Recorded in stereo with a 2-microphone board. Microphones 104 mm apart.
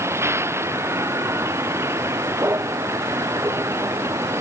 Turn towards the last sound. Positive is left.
turn(degrees=-25)  # may be behind; listen again after turning